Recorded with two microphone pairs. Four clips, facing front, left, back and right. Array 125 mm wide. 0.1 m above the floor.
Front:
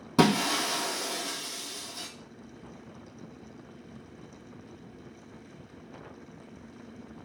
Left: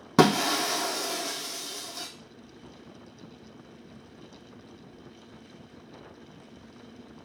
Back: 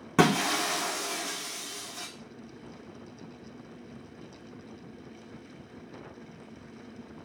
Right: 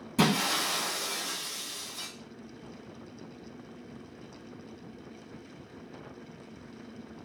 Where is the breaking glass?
100° left, 1.7 m.